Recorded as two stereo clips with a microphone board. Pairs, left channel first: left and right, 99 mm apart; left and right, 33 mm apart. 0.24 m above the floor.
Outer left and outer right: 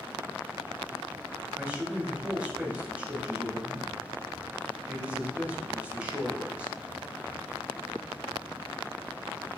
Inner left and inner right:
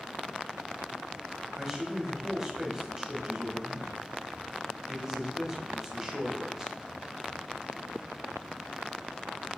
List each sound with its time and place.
1.6 s a man speaking: 15° right (ahead or behind), 1.0 m